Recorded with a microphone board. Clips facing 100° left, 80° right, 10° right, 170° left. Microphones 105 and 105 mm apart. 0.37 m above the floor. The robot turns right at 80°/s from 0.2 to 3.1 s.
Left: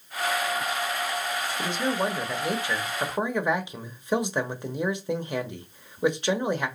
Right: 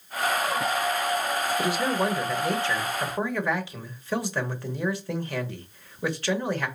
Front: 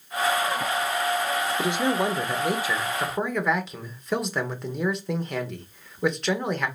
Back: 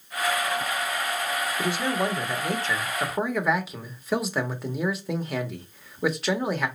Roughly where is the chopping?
No chopping in this recording.